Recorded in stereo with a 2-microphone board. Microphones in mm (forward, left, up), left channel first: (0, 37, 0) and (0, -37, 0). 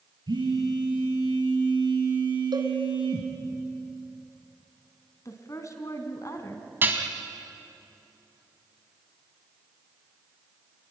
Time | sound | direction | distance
0.3 | a phone buzzing | 80° right | 5 m
2.5 | a cowbell | 75° right (ahead or behind) | 2.0 m
5.2 | a woman speaking | 45° left (ahead or behind) | 3 m
6.8 | dishes clattering | 30° right (ahead or behind) | 2 m